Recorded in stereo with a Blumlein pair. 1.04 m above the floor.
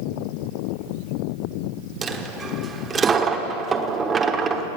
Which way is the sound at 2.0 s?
20° right.